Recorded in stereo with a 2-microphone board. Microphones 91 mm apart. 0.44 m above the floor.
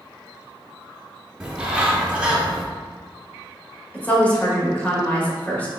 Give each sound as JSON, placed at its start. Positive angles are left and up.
{"t": 1.4, "sound": "a bird", "side_deg": -10, "distance_m": 0.8}
{"t": 3.9, "sound": "a woman speaking", "side_deg": 15, "distance_m": 1.4}